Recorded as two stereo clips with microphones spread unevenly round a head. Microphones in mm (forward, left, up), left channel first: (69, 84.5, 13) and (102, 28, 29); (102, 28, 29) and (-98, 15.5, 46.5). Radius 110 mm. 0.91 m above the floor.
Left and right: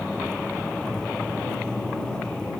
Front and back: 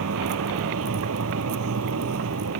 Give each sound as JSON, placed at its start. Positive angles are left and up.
{"t": 0.0, "sound": "a vehicle", "azimuth_deg": -150}